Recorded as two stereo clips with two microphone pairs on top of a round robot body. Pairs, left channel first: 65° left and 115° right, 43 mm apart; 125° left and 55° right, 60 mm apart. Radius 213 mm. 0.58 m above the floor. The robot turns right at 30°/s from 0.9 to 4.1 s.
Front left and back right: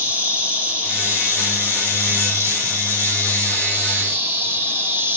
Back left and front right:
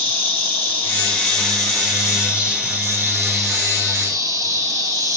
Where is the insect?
175° right, 2.5 m; by 5.2 s 80° right, 2.5 m.